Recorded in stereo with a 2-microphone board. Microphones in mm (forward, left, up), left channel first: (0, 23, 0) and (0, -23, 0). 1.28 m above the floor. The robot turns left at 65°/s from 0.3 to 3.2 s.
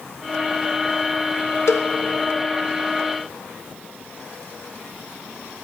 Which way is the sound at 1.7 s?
75° left (ahead or behind).